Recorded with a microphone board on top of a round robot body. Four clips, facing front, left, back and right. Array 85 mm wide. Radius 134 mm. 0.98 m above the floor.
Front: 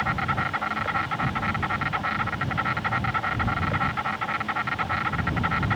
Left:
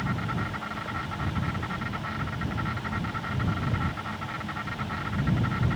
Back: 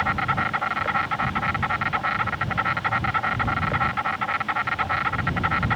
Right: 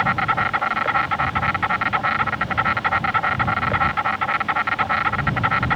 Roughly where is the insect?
Right.